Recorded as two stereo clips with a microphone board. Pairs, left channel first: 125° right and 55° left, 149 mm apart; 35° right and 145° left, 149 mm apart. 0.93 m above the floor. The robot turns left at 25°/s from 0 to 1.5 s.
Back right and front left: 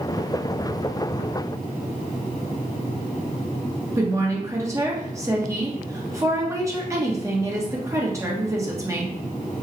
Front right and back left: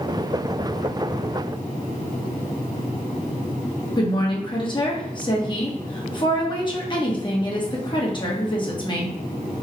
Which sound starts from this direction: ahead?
A woman speaking, at 4.0 s.